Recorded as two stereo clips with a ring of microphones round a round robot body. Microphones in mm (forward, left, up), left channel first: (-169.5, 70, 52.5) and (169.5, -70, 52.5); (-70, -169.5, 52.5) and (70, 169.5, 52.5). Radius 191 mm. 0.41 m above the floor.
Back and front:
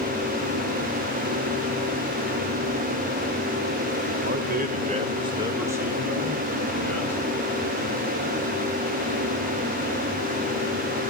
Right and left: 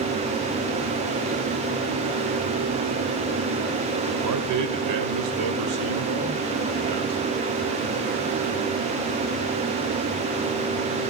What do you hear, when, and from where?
4.2 s a man speaking: 35° left, 1.6 m; by 7.2 s 75° left, 2.5 m